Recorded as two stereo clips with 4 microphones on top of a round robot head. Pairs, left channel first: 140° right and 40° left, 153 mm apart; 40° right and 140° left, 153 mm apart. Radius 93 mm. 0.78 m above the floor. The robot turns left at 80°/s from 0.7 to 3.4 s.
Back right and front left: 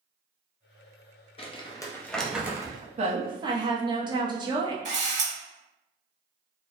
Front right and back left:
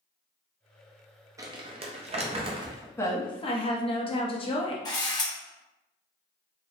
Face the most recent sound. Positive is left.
turn(degrees=15)